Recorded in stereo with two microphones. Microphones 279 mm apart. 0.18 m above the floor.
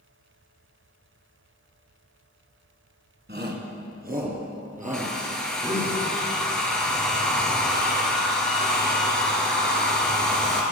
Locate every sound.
3.3 s a shout: 40° right (ahead or behind), 2 m; by 5.9 s 25° right (ahead or behind), 5.5 m
4.9 s a hair dryer: 5° left (ahead or behind), 2 m